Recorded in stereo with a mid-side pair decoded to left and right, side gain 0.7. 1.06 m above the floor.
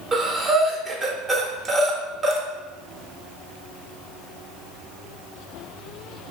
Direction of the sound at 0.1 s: 25° right.